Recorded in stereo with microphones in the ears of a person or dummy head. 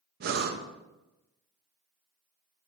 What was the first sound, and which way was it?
Breathing, 50° right (ahead or behind).